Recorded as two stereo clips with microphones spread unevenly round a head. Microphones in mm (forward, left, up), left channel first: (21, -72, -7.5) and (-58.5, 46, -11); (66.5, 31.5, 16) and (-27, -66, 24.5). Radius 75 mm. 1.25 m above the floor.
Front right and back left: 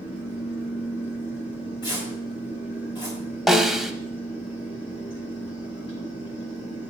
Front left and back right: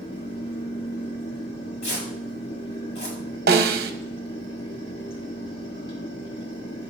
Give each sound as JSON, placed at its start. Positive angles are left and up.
{"t": 0.0, "sound": "a fan", "azimuth_deg": 0, "distance_m": 1.9}
{"t": 1.8, "sound": "tearing paper", "azimuth_deg": 10, "distance_m": 5.0}
{"t": 3.5, "sound": "a snare drum", "azimuth_deg": -145, "distance_m": 0.9}